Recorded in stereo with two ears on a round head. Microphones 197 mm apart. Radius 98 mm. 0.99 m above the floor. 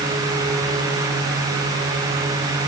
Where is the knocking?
I don't hear knocking.